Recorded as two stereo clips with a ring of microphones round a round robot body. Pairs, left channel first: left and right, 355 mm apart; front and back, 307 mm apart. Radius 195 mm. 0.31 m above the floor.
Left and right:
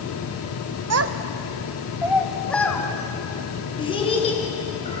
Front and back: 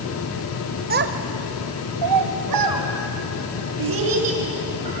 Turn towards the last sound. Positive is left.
turn(degrees=165)